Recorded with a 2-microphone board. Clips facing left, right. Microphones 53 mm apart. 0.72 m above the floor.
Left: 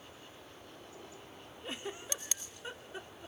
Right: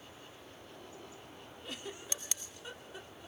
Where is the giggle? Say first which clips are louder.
Left 3 dB; 25° left (ahead or behind), 1.6 m.